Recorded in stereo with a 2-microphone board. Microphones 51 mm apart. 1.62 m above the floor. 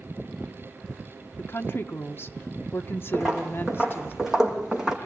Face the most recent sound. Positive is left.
turn(degrees=-10)  # may be behind; listen again after turning